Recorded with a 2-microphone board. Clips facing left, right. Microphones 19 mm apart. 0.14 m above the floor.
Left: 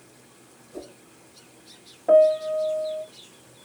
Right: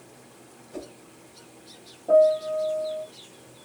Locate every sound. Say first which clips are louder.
0.7 s a whoosh: right 1 dB; 45° right (ahead or behind), 2.5 m
2.1 s a piano: left 2 dB; 65° left (ahead or behind), 0.9 m